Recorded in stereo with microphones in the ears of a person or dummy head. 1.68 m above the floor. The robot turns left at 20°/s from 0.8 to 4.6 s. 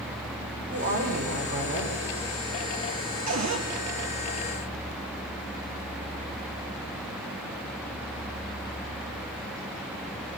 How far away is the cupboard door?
About 3.5 m.